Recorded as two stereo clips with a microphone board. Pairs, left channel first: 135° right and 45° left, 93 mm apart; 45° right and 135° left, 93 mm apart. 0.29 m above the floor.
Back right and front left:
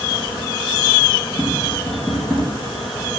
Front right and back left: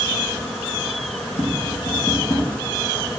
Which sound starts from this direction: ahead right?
Tapping, at 1.4 s.